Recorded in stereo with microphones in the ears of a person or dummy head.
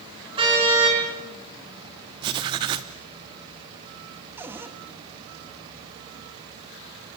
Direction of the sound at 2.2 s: 20° right (ahead or behind).